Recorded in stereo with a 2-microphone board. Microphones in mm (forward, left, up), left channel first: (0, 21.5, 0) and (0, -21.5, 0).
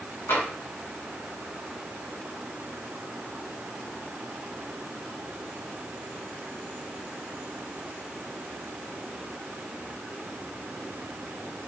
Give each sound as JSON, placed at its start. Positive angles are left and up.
{"t": 0.3, "sound": "tapping", "side_deg": 70, "distance_m": 2.0}